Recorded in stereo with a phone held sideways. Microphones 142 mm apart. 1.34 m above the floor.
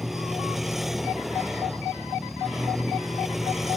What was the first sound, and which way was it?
A vehicle, centre (ahead or behind).